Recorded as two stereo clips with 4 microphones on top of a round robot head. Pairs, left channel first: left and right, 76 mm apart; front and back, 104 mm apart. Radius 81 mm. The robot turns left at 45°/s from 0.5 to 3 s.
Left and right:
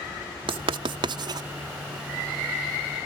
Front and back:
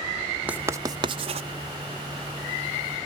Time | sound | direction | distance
0.5 | writing | 100° right | 0.5 m